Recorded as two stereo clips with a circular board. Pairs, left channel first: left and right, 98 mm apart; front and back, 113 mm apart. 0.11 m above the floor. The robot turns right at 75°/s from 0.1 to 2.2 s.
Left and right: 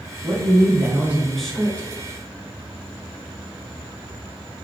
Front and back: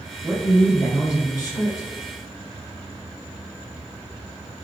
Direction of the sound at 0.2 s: 85° right.